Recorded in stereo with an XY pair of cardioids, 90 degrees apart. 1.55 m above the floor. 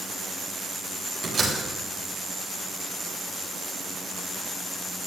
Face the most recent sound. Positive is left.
turn(degrees=-40)